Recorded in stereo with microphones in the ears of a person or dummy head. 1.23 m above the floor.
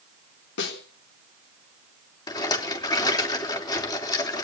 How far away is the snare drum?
About 3.5 m.